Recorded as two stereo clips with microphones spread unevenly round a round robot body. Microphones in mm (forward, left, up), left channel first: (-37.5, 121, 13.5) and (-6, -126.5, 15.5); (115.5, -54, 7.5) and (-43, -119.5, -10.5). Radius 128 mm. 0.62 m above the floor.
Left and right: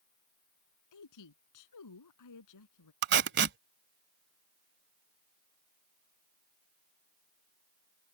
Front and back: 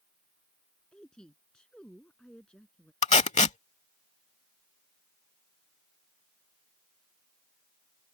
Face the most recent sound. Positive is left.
turn(degrees=-30)